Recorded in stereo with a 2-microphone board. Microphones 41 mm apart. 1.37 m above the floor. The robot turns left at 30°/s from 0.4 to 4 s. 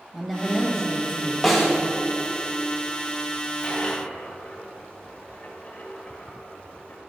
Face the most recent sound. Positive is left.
turn(degrees=35)  # may be behind; listen again after turning